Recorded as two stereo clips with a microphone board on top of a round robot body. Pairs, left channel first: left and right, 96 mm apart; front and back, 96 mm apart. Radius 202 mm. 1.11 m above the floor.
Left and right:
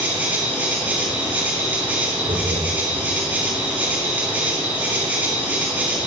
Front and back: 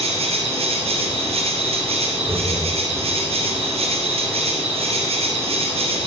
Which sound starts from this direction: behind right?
Laughter, at 2.2 s.